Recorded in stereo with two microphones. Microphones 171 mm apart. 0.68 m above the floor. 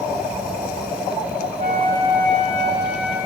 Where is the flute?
35° right (ahead or behind), 4.5 m.